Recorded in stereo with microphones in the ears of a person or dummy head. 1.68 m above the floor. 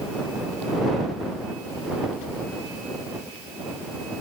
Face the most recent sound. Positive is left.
No sound to turn to.